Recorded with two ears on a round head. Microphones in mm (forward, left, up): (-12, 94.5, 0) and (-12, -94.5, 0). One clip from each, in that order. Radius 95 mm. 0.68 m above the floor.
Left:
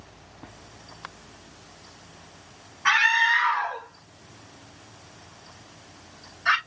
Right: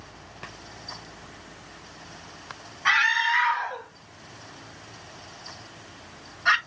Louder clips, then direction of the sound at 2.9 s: Left 2 dB; 5° right (ahead or behind).